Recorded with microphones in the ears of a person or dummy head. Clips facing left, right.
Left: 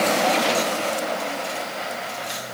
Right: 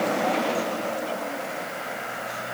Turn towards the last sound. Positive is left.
No sound to turn to.